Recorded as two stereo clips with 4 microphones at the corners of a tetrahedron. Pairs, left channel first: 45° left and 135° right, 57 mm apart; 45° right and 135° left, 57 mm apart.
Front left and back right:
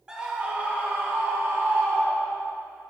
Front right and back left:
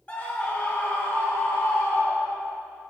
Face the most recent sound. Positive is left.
turn(degrees=-105)